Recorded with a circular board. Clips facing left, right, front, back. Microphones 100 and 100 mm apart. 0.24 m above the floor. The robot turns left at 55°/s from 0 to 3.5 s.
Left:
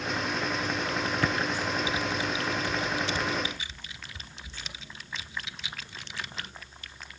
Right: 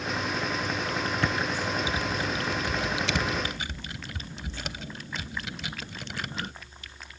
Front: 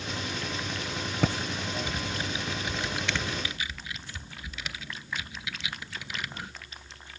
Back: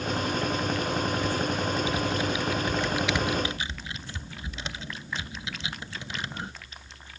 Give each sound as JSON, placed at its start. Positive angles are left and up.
{"t": 1.2, "sound": "typing on a keyboard", "azimuth_deg": 5, "distance_m": 0.7}